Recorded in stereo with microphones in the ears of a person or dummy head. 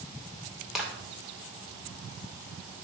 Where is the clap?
Centre (ahead or behind), 2.5 m.